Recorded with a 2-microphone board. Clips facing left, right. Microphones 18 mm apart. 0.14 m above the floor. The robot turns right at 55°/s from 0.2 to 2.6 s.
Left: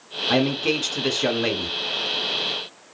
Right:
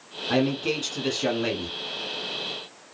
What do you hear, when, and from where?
0.3 s a man speaking: 15° left (ahead or behind), 1.2 m